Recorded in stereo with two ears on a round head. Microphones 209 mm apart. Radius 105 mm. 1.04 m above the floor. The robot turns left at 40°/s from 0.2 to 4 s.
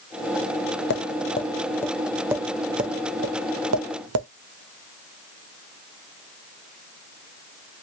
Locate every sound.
0.9 s tapping: 45° left (ahead or behind), 0.6 m; by 4.3 s 70° right (ahead or behind), 0.6 m